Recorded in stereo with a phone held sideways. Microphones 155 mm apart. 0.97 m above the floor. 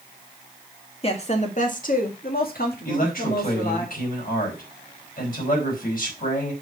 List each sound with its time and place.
1.0 s a woman speaking: 40° left (ahead or behind), 1.8 m; by 3.9 s 70° left (ahead or behind), 3 m
2.9 s a man speaking: 65° left (ahead or behind), 4.5 m